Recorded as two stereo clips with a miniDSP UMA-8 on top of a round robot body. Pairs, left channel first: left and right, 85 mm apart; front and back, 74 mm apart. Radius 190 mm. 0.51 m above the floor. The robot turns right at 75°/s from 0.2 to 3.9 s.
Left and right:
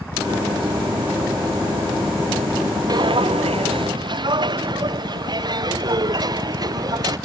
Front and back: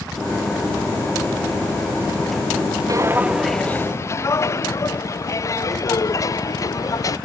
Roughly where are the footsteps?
Behind right.